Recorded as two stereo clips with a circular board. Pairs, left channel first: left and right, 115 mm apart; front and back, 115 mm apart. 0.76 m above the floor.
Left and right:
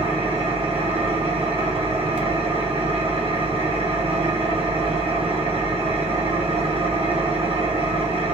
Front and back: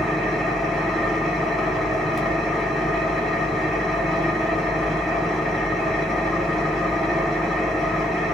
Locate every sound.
0.0 s an engine running: 90° right, 0.9 m